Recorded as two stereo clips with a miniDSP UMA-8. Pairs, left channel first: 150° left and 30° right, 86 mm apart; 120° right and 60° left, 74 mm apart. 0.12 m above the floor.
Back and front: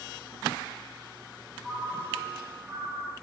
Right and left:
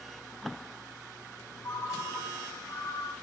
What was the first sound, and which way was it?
A ringtone, 90° right.